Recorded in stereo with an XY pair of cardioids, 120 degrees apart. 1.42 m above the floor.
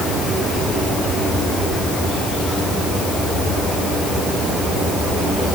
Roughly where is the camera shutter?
No camera shutter in this recording.